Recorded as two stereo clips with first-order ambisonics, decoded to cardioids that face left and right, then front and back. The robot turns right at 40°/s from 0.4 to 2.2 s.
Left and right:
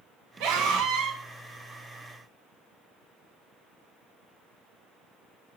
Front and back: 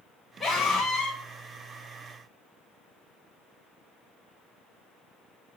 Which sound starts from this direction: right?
A scream, at 0.4 s.